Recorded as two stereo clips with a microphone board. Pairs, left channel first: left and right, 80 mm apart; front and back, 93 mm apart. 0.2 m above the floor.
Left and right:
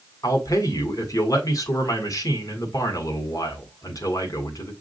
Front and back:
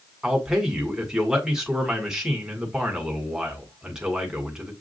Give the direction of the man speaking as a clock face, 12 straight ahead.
9 o'clock.